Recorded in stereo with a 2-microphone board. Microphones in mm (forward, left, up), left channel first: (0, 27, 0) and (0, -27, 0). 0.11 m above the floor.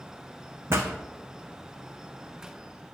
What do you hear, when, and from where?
0.7 s a pop: 60° right (ahead or behind), 1.6 m